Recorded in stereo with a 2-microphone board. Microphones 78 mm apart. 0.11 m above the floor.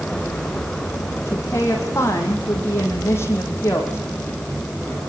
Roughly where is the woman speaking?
Left.